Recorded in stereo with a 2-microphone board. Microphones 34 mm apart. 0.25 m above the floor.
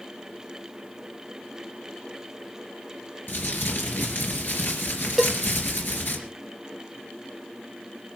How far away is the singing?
I don't hear singing.